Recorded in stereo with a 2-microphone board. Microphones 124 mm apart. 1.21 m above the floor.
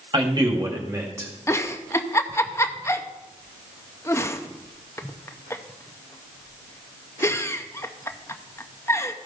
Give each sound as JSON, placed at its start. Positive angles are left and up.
{"t": 0.1, "sound": "a man speaking", "side_deg": -40, "distance_m": 2.0}
{"t": 1.5, "sound": "a giggle", "side_deg": 20, "distance_m": 0.6}